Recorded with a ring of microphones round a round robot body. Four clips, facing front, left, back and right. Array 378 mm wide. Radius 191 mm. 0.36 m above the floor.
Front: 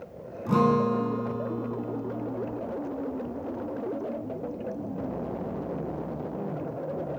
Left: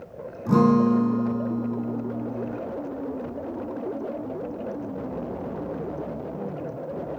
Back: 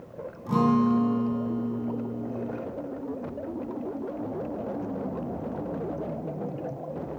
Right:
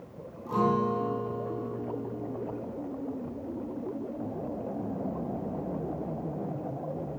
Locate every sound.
0.5 s a guitar: 80° left, 3 m